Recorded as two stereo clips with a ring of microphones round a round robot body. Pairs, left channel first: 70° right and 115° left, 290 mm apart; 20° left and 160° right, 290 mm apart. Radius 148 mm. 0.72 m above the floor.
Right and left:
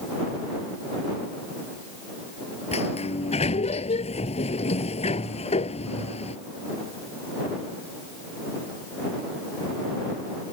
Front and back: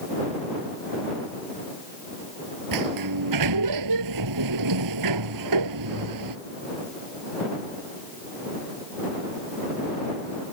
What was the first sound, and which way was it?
A sliding door, 135° right.